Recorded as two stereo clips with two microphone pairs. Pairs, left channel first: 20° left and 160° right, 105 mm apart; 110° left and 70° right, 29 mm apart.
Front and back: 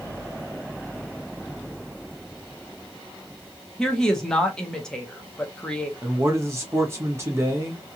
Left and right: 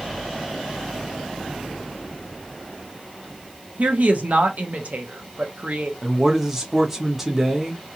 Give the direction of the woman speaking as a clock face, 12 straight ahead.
2 o'clock.